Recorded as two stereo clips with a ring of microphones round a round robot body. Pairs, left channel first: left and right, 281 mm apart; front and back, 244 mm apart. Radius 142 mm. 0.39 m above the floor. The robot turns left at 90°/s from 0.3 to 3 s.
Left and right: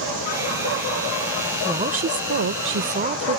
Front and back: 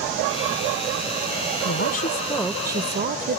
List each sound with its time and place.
1.6 s a woman speaking: 15° right; by 3.4 s 135° right